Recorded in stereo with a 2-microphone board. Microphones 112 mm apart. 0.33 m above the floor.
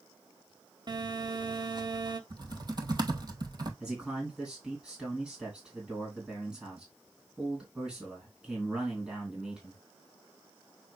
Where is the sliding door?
No sliding door in this recording.